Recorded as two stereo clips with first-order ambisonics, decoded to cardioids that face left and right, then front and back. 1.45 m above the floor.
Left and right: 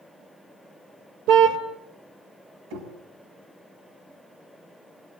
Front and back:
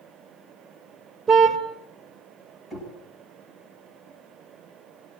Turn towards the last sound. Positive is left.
turn(degrees=-90)